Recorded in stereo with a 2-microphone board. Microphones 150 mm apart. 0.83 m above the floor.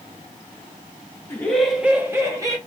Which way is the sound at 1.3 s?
15° left (ahead or behind).